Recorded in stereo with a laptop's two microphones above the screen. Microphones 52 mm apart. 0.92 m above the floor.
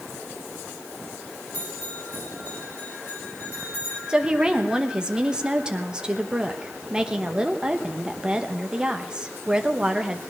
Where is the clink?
I don't hear a clink.